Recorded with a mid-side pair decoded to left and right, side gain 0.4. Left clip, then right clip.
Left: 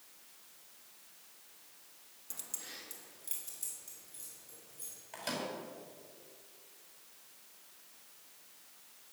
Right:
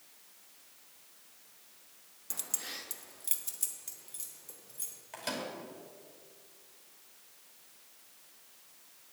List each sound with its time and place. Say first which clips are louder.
2.3 s keys jangling: right 7 dB; 50° right, 0.6 m; by 5.0 s 65° right, 3 m
5.1 s a microwave: right 1 dB; 15° right, 4.5 m